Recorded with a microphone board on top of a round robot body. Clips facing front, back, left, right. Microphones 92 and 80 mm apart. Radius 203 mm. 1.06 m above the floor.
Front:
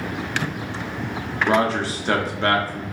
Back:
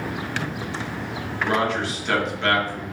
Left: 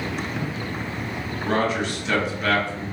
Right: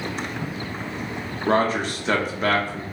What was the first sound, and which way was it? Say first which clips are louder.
A man speaking: front 3 dB, right 2 dB; 50° right.